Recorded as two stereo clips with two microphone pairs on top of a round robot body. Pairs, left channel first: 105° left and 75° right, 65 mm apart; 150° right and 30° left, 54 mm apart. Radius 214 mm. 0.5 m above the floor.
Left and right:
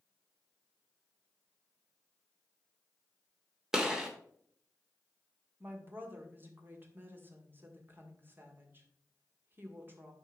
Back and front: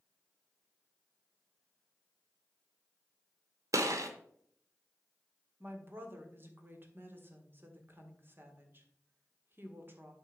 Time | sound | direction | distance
3.7 | a gunshot | 10° left | 0.9 m
5.6 | a woman speaking | 15° right | 1.9 m